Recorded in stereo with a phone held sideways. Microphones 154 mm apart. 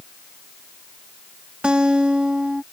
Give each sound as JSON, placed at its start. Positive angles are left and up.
{"t": 1.6, "sound": "a guitar", "side_deg": -5}